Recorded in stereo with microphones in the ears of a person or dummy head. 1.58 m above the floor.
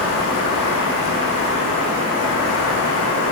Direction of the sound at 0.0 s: 70° left (ahead or behind).